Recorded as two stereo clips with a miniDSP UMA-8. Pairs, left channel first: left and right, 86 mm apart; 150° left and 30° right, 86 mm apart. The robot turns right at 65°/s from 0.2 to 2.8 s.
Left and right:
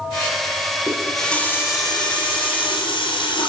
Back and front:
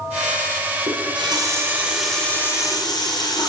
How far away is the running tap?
About 6 m.